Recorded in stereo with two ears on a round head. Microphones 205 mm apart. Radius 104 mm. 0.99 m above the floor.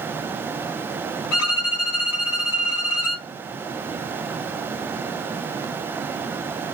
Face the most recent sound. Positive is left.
turn(degrees=75)  # may be behind; listen again after turning